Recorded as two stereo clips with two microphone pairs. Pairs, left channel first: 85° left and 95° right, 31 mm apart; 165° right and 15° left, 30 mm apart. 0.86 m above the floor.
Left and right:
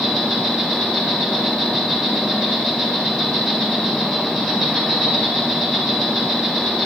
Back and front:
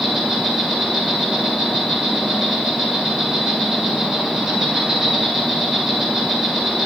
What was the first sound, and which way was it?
An insect, 45° left.